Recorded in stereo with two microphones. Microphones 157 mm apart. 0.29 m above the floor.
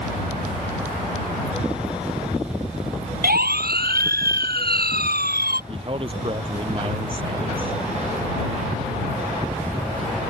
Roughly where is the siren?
Right.